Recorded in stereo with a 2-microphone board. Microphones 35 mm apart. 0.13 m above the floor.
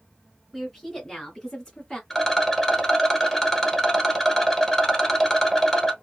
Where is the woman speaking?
5° left (ahead or behind), 1.8 m; by 2.0 s 20° left (ahead or behind), 1.6 m.